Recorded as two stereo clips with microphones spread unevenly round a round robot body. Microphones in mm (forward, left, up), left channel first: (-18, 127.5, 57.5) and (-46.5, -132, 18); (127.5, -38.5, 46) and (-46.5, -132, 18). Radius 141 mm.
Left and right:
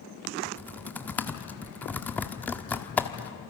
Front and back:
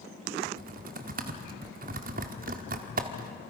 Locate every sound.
0.5 s typing on a keyboard: 170° left, 1.3 m